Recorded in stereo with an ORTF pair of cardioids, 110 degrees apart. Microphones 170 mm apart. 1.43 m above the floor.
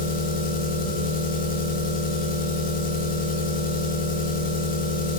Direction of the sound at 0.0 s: 55° left.